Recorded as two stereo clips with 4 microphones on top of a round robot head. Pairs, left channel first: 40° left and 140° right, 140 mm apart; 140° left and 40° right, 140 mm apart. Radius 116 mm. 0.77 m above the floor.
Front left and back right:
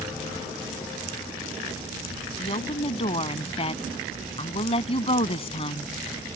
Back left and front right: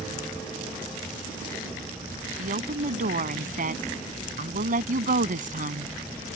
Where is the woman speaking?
10° right.